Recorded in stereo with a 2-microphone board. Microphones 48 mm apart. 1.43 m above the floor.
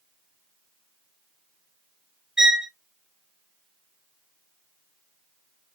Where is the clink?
No clink in this recording.